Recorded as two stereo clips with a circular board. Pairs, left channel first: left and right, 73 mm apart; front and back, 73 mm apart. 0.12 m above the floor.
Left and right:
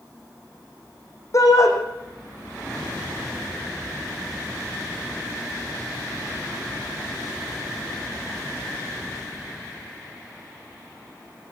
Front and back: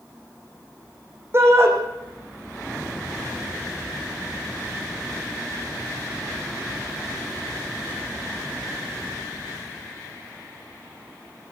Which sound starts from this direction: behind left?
A shout, at 1.3 s.